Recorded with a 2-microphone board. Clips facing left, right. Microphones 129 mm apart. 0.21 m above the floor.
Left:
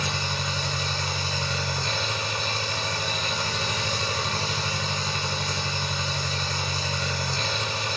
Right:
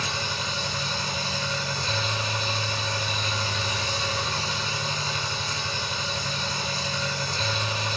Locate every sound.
0.0 s an engine running: 65° left (ahead or behind), 1.0 m